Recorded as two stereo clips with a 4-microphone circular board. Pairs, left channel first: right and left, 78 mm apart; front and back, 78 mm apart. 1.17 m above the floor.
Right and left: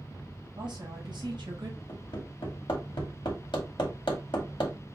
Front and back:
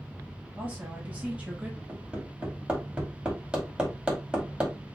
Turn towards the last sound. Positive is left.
turn(degrees=-100)